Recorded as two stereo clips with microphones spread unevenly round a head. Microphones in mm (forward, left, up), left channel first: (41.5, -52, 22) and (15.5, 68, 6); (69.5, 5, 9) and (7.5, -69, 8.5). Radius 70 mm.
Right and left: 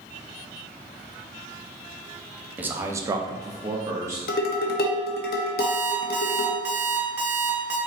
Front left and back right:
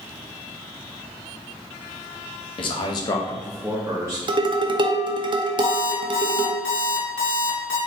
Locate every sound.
2.6 s a man speaking: 35° left, 0.9 m; by 4.2 s 165° left, 1.1 m
4.3 s dishes clattering: 90° right, 0.6 m
5.6 s an alarm clock: 30° left, 1.5 m